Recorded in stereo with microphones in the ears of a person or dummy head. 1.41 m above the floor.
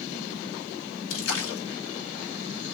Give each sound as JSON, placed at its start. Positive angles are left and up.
{"t": 1.1, "sound": "a splash", "side_deg": 80, "distance_m": 1.0}